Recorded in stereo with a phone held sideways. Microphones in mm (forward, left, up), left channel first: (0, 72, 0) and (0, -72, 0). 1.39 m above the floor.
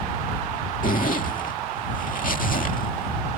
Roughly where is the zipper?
Left.